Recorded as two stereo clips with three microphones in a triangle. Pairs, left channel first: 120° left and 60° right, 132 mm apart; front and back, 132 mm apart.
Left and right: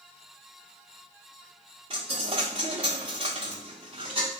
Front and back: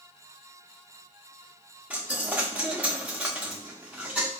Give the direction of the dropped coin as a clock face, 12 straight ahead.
3 o'clock.